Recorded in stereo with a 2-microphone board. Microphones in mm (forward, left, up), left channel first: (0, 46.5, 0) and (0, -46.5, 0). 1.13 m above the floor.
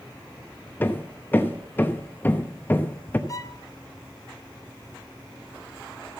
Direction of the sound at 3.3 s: 40° left (ahead or behind).